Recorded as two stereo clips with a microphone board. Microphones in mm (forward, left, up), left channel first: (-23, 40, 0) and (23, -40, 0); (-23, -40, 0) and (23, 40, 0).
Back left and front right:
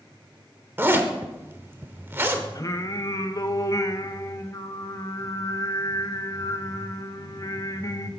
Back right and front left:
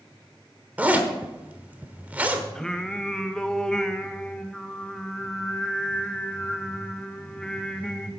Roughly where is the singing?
Behind.